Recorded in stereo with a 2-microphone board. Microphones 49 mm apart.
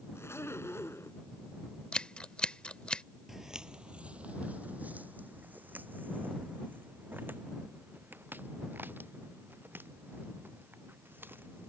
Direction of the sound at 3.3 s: 5° right (ahead or behind).